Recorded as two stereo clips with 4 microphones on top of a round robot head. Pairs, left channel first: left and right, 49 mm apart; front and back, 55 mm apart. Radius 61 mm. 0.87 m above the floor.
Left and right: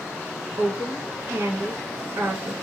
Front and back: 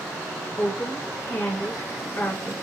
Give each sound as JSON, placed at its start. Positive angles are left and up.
{"t": 0.6, "sound": "a woman speaking", "azimuth_deg": -65, "distance_m": 1.5}